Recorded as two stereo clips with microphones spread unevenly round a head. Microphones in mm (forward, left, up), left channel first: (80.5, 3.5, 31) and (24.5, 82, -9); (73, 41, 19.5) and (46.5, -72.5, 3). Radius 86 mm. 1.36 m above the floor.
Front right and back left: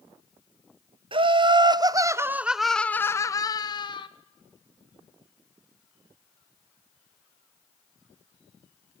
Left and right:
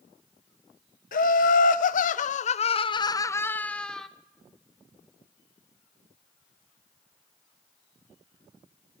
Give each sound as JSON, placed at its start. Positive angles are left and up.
{"t": 1.1, "sound": "laughter", "azimuth_deg": 105, "distance_m": 0.9}